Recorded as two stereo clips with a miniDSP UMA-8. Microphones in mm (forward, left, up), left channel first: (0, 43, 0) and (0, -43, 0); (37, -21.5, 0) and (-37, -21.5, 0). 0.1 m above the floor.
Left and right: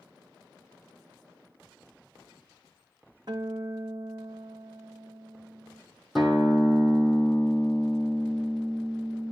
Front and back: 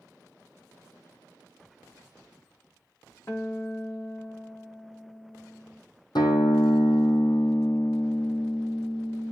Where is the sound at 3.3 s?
55° right, 1.6 m.